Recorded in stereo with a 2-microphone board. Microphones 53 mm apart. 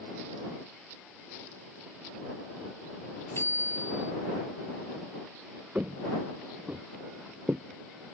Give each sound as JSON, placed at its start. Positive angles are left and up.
{"t": 3.4, "sound": "a bicycle bell", "side_deg": 55}
{"t": 5.8, "sound": "footsteps", "side_deg": -30}